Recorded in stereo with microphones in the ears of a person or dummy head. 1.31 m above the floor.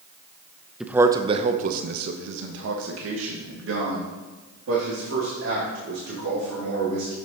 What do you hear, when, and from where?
0.8 s a man speaking: centre (ahead or behind), 0.6 m; by 7.2 s 80° right, 3 m